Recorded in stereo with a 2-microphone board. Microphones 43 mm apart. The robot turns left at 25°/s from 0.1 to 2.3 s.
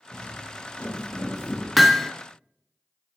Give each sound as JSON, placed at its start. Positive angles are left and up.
{"t": 0.1, "sound": "footsteps", "side_deg": 45, "distance_m": 2.5}
{"t": 1.8, "sound": "hammering", "side_deg": 0, "distance_m": 0.6}